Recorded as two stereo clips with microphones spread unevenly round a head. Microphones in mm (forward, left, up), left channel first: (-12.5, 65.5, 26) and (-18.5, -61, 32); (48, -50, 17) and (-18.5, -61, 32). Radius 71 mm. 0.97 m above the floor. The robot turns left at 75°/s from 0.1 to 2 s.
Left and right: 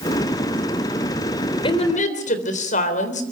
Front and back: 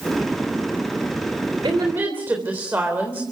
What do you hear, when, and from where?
1.6 s a woman speaking: 140° left, 3.5 m; by 3.2 s 115° left, 3.5 m